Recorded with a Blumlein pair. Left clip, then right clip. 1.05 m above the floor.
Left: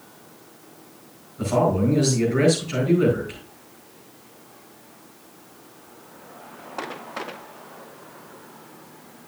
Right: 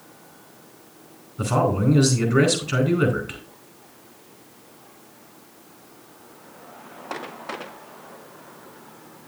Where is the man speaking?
65° right, 4.5 m.